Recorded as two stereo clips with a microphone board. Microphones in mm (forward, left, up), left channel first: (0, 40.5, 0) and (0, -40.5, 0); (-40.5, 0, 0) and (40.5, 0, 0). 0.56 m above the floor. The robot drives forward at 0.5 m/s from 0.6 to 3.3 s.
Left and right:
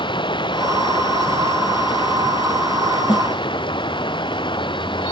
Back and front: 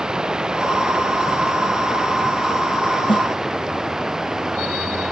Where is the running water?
80° left; by 5.1 s 85° left.